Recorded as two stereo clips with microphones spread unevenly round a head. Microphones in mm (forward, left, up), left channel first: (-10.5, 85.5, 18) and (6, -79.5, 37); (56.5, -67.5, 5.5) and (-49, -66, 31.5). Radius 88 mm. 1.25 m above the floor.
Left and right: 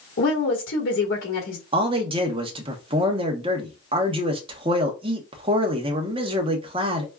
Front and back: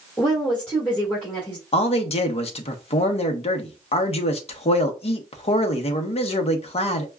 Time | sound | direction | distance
0.2 | a woman speaking | 80° left | 1.5 m
1.7 | a man speaking | 25° right | 1.0 m